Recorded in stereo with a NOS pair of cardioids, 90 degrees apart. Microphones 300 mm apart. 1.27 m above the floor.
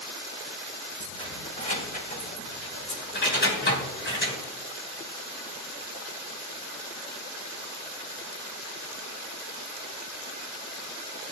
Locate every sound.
1.0 s keys jangling: 20° left, 4.5 m; by 4.4 s 40° left, 5.5 m